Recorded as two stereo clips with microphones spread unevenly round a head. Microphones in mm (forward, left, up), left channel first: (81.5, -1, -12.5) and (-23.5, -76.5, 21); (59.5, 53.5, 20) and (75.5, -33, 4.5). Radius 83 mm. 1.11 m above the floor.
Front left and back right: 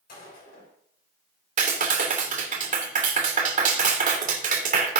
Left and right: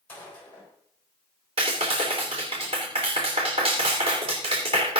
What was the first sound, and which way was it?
A gunshot, 30° left.